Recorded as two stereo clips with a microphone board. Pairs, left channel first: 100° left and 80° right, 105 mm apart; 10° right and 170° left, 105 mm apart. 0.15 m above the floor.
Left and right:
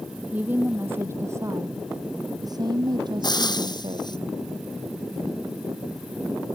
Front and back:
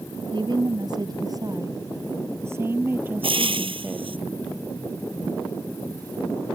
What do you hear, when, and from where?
0.3 s a woman speaking: 155° right; by 4.2 s 110° right
3.2 s frying: 145° left